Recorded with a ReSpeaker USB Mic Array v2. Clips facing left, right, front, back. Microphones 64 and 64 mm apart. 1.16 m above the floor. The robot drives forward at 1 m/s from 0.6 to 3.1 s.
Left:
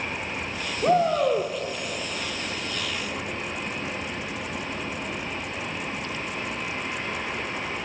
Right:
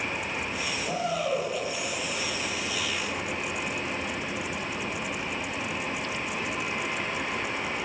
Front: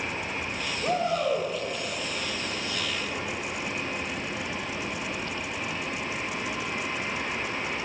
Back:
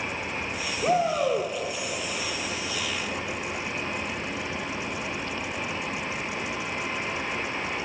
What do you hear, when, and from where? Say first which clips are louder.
0.8 s a shout: left 10 dB, back 3 dB; 105° left, 2.5 m; by 1.5 s 115° left, 3 m